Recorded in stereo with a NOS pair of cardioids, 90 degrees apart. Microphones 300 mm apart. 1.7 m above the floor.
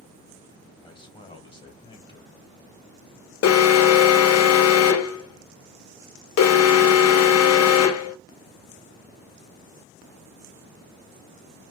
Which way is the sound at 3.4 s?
55° left.